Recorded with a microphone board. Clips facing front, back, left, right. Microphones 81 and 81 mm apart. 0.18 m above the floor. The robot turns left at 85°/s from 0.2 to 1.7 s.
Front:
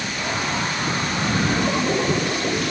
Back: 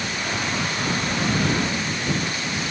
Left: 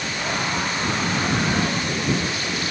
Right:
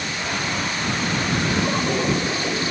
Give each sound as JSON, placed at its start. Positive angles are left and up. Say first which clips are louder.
{"t": 1.6, "sound": "a toilet flushing", "louder": "front 5 dB, right 2 dB", "azimuth_deg": -15}